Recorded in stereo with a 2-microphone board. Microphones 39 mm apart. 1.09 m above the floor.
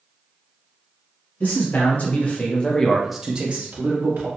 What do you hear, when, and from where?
1.4 s a man speaking: 50° left (ahead or behind), 1.3 m; by 4.3 s 60° right (ahead or behind), 0.9 m